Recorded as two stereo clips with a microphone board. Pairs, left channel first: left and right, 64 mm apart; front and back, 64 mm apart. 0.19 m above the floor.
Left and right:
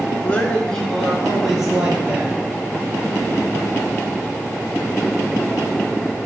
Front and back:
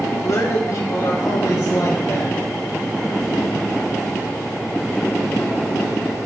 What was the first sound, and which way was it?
A man speaking, 25° left.